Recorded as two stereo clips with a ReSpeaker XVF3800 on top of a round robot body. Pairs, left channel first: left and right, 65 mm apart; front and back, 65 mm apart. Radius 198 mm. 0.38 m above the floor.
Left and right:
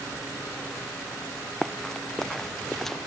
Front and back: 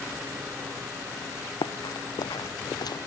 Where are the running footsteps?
5° left.